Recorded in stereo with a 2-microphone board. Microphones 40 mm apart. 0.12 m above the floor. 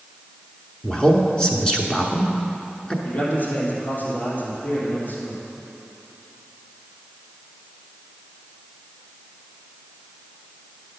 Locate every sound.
0.8 s a man speaking: 20° left (ahead or behind), 1.1 m
3.0 s a man speaking: 45° left (ahead or behind), 3.5 m